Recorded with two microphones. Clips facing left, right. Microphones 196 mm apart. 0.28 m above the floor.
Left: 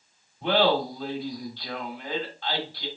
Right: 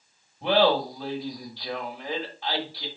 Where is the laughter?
10° right (ahead or behind), 1.1 m.